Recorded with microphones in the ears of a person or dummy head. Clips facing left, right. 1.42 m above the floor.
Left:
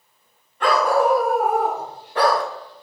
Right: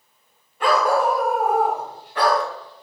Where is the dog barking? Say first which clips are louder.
Left 1 dB; 5° right (ahead or behind), 1.9 m; by 2.4 s 40° left (ahead or behind), 1.2 m.